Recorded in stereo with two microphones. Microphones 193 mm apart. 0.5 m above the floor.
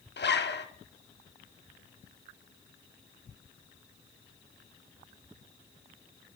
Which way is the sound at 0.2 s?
65° left (ahead or behind).